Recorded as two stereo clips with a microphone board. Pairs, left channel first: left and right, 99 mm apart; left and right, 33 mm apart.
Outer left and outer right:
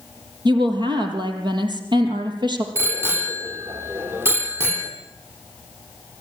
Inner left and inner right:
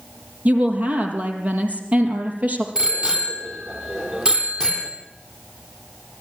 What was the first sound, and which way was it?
A woman speaking, 50° right (ahead or behind).